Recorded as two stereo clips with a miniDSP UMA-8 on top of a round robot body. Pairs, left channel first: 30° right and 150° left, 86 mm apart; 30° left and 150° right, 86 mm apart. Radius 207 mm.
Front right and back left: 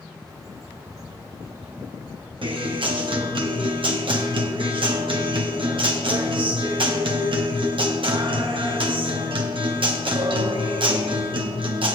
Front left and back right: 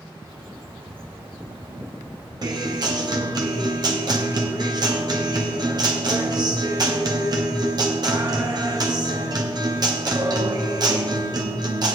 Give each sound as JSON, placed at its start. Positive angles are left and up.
{"t": 0.2, "sound": "a bird", "azimuth_deg": -155, "distance_m": 1.9}
{"t": 2.4, "sound": "a guitar", "azimuth_deg": 170, "distance_m": 1.2}